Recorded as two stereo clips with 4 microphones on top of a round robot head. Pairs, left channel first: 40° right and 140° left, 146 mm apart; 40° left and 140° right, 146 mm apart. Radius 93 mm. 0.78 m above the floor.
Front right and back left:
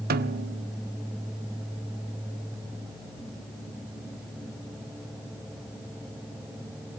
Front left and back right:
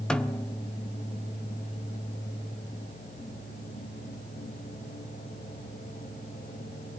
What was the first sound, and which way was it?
A snare drum, 125° left.